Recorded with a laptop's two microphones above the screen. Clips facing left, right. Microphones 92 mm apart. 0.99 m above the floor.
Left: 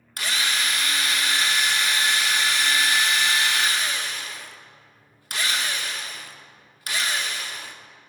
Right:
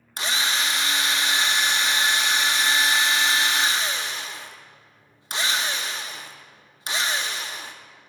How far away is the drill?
About 0.7 m.